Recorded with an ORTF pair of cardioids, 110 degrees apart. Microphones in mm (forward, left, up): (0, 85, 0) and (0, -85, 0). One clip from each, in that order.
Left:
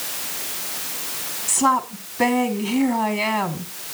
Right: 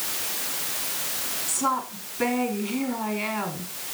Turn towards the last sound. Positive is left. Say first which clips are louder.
# left 7 dB
turn(degrees=45)